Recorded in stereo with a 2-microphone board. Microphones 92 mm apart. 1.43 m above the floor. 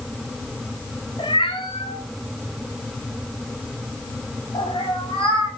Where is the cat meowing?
60° left (ahead or behind), 3 m.